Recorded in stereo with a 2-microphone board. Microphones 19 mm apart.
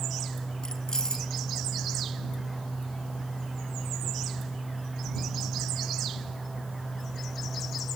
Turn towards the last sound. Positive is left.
turn(degrees=30)  # may be behind; listen again after turning